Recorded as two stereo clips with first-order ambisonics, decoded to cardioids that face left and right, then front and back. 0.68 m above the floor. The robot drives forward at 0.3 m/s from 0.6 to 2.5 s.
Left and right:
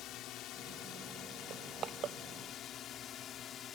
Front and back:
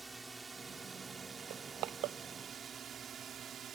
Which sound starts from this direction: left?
A drone, at 0.0 s.